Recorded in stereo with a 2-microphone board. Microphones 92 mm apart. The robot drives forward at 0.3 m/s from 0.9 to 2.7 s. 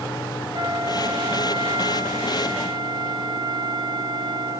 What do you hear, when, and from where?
0.5 s a flute: 60° right (ahead or behind), 0.9 m; by 4.6 s 50° right (ahead or behind), 1.0 m